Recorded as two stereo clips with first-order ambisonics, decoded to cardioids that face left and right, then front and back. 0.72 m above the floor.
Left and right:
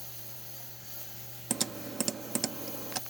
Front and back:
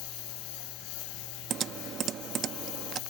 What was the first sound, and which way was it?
A lawn mower, 5° left.